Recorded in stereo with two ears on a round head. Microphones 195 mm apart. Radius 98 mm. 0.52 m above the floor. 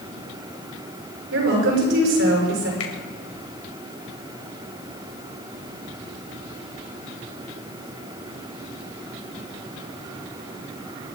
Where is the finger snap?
65° left (ahead or behind), 2.5 m.